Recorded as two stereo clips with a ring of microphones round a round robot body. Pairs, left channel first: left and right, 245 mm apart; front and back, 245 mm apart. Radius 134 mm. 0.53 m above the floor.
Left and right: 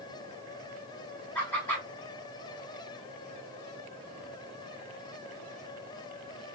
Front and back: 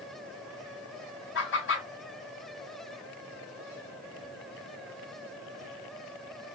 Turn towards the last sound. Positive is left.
turn(degrees=10)